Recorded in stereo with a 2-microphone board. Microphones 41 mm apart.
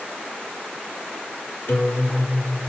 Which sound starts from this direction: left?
A guitar, at 1.7 s.